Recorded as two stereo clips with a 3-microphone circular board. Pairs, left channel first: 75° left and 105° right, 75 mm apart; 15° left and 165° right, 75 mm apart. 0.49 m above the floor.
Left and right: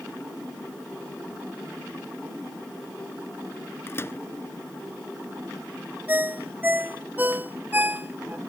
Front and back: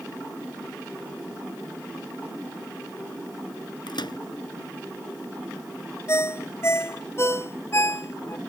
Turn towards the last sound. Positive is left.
turn(degrees=-40)